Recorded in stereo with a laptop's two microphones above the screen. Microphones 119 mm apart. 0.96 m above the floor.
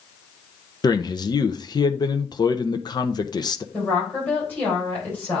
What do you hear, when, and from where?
0.8 s a man speaking: 40° left (ahead or behind), 0.6 m
3.7 s a woman speaking: 15° left (ahead or behind), 4 m